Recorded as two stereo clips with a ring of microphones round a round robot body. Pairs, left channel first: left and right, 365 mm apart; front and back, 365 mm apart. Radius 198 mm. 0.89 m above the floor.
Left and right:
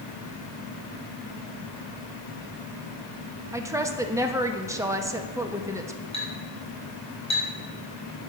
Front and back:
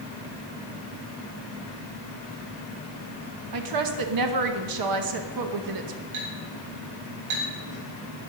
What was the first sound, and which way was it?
A woman speaking, 170° right.